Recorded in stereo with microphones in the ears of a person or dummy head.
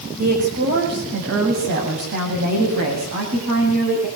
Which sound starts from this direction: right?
A woman speaking, at 0.2 s.